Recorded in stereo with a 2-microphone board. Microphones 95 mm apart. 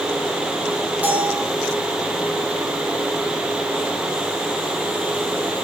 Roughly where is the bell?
Centre.